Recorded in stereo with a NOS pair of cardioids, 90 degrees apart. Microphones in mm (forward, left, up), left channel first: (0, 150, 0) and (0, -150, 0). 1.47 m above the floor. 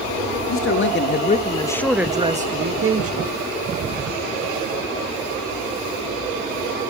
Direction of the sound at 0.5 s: 45° left.